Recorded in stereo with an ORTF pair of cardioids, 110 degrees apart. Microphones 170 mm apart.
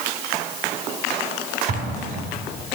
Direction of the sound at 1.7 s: 65° right.